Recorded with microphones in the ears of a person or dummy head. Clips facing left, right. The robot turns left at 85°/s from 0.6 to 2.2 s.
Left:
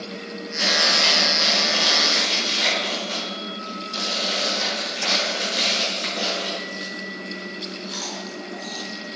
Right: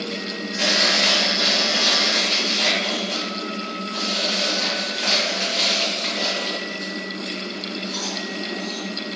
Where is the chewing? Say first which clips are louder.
Right 2 dB; 70° right (ahead or behind), 1.3 m; by 8.8 s 65° left (ahead or behind), 1.3 m.